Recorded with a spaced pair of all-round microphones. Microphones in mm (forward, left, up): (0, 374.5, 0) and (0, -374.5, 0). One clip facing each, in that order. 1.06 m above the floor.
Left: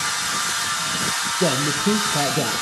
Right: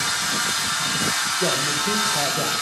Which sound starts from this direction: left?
A man speaking, at 1.4 s.